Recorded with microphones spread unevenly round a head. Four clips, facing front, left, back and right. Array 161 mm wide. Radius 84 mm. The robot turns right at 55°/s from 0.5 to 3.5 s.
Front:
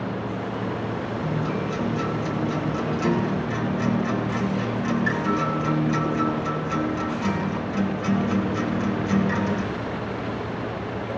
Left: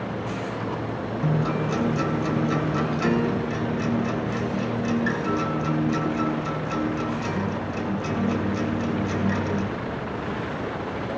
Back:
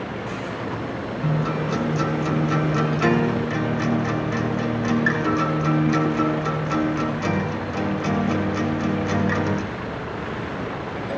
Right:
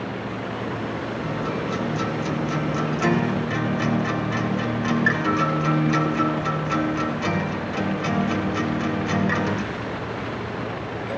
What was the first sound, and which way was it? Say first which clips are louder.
A guitar: left 4 dB, back 5 dB; 100° left.